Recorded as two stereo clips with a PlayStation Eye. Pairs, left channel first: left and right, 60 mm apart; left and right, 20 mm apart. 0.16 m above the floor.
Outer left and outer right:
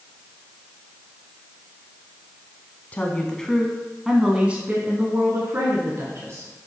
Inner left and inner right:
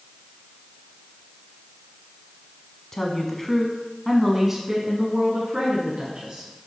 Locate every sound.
2.9 s a woman speaking: 25° left (ahead or behind), 1.1 m; by 6.5 s 50° right (ahead or behind), 2.0 m